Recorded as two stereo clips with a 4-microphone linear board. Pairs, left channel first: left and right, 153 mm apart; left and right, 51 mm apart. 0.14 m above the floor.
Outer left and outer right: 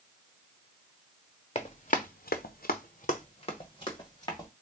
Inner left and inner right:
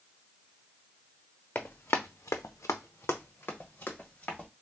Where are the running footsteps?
40° left (ahead or behind), 0.8 m; by 4.5 s 25° left (ahead or behind), 1.7 m.